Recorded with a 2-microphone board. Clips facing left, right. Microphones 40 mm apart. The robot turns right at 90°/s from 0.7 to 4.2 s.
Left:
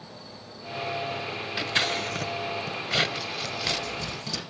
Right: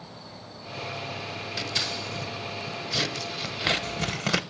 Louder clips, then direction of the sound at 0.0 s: Even; 165° right.